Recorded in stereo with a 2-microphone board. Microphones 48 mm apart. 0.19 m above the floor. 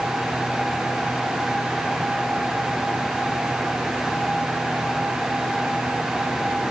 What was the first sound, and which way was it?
Only background noise.